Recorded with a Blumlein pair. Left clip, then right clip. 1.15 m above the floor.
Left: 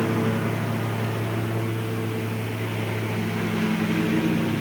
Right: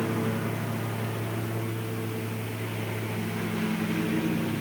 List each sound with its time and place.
0.0 s a lawn mower: 15° left